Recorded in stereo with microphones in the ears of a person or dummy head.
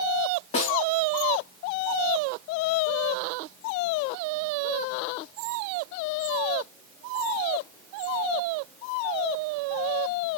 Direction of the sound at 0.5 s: 40° left (ahead or behind).